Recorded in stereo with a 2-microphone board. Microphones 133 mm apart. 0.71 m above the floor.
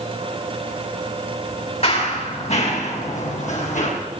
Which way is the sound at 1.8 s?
50° left (ahead or behind).